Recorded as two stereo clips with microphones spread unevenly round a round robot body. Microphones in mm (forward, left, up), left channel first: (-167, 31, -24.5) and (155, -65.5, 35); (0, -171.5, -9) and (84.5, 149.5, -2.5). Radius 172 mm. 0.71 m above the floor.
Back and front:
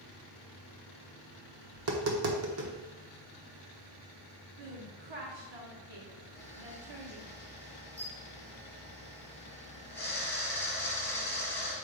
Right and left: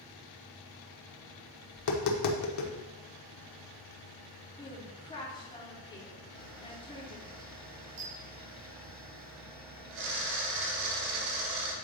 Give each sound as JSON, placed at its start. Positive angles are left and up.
{"t": 1.8, "sound": "tapping", "azimuth_deg": -65, "distance_m": 1.1}
{"t": 4.6, "sound": "a woman speaking", "azimuth_deg": -30, "distance_m": 2.0}
{"t": 6.3, "sound": "a camera shutter", "azimuth_deg": 75, "distance_m": 2.5}